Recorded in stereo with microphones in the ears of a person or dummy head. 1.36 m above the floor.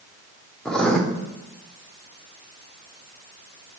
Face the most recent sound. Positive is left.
turn(degrees=5)  # may be behind; listen again after turning